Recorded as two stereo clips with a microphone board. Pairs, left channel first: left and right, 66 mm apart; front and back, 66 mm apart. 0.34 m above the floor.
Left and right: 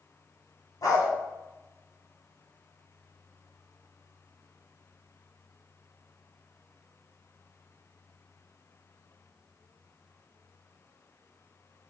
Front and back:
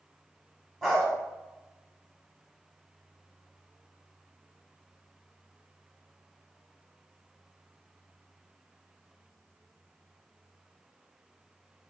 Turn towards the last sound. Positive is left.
turn(degrees=90)